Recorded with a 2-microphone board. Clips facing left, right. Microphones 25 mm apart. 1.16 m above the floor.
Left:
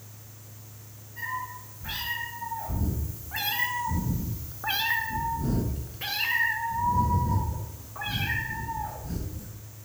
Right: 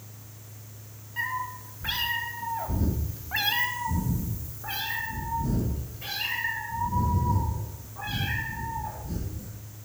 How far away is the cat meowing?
About 1.8 m.